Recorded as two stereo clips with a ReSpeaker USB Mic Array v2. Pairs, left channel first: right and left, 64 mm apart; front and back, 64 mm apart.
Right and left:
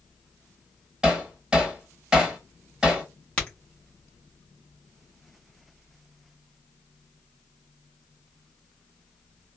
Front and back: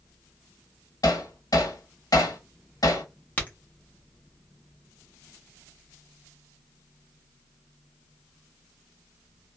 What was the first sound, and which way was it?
Hammering, 15° left.